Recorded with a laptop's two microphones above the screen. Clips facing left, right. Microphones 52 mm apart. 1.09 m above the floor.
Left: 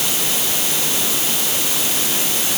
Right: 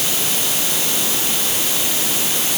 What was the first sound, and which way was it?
Only background noise.